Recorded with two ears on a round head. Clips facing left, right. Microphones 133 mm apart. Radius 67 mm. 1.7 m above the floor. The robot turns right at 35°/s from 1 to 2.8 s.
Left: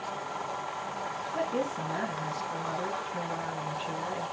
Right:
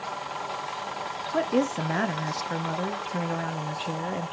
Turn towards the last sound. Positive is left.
turn(degrees=-60)